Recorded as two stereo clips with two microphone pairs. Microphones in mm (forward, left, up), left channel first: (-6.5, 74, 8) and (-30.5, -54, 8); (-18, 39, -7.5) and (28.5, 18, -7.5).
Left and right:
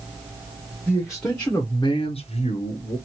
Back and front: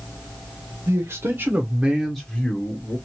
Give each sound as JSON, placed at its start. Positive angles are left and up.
{"t": 0.9, "sound": "a man speaking", "azimuth_deg": -20, "distance_m": 0.8}